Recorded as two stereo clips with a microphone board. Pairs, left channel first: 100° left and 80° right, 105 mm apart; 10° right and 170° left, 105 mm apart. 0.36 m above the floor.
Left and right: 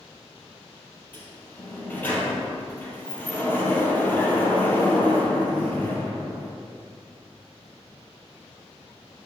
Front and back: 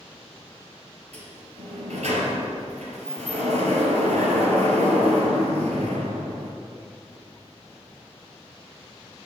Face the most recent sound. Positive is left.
turn(degrees=175)